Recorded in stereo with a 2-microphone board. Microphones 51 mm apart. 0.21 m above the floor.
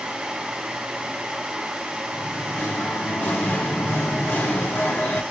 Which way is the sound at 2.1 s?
40° left (ahead or behind).